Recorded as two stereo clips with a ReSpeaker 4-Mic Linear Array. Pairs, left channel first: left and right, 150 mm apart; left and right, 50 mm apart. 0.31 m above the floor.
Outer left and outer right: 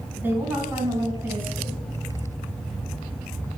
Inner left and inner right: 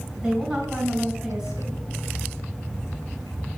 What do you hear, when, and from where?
0.2 s a woman speaking: 15° right (ahead or behind), 3 m